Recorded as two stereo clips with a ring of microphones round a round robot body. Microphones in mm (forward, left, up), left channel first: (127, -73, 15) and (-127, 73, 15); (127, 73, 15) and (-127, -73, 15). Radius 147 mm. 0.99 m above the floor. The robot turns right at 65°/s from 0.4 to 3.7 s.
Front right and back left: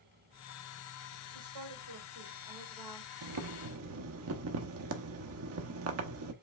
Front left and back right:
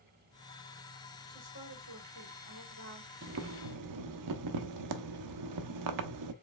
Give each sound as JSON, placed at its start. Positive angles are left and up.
{"t": 1.3, "sound": "a woman speaking", "azimuth_deg": 150, "distance_m": 2.5}
{"t": 3.2, "sound": "boiling", "azimuth_deg": 160, "distance_m": 0.7}